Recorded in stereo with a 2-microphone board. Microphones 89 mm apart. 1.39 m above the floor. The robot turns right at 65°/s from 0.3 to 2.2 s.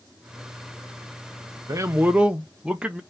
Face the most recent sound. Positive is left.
turn(degrees=-10)